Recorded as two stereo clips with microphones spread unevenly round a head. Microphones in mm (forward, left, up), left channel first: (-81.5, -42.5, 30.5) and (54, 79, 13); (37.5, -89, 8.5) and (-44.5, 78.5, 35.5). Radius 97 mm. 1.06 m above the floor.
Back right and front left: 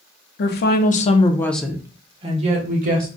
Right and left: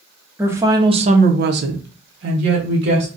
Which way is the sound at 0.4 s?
160° right.